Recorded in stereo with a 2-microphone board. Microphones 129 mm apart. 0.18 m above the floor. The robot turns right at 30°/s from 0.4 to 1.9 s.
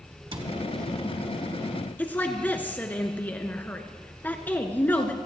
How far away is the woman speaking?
About 1.9 m.